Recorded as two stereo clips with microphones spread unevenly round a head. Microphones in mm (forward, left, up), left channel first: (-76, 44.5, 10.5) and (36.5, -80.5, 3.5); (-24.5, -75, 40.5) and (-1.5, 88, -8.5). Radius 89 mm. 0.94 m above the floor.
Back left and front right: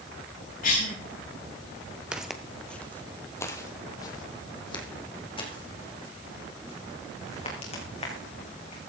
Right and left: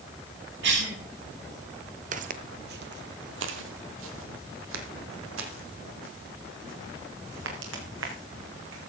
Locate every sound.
0.6 s a cough: 85° left, 7 m
2.1 s footsteps: 35° left, 1.1 m; by 8.8 s 75° left, 4.5 m